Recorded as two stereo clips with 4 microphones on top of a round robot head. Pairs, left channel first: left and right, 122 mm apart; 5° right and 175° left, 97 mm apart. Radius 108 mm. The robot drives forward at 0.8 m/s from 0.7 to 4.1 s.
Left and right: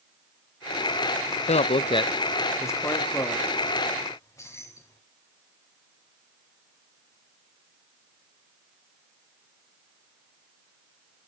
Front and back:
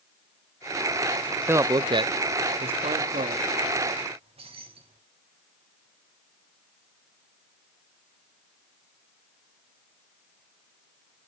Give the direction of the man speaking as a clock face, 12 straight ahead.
8 o'clock.